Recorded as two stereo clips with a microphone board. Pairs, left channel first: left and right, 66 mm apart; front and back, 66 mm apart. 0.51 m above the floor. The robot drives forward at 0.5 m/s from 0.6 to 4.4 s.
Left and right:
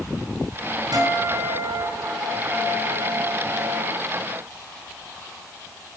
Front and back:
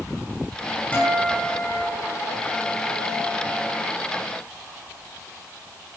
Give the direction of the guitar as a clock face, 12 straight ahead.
2 o'clock.